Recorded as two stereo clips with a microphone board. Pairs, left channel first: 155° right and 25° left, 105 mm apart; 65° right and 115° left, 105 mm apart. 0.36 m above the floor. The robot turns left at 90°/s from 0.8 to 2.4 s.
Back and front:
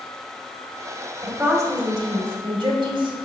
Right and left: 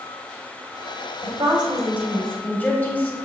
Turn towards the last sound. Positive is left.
turn(degrees=5)